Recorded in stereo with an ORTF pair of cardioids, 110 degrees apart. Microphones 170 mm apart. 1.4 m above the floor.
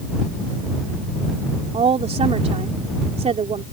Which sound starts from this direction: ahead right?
A woman speaking, at 1.7 s.